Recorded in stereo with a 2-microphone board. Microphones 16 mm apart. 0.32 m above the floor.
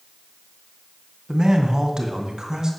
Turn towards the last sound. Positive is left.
turn(degrees=-45)  # may be behind; listen again after turning